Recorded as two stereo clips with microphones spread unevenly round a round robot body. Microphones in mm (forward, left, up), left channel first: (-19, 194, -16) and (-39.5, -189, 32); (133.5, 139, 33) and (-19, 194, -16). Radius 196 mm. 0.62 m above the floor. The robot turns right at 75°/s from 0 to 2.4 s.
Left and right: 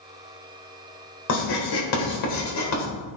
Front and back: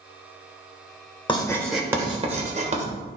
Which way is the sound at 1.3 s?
45° left.